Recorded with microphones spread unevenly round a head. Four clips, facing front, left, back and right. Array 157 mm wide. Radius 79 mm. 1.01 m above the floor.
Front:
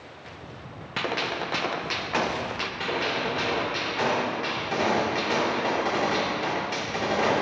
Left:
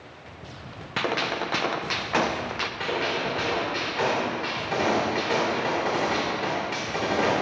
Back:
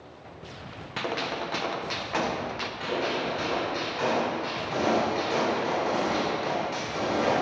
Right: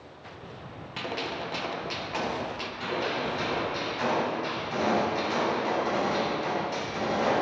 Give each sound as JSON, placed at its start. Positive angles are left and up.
{"t": 1.0, "sound": "a gunshot", "azimuth_deg": 80, "distance_m": 0.6}
{"t": 2.8, "sound": "a gunshot", "azimuth_deg": 50, "distance_m": 3.0}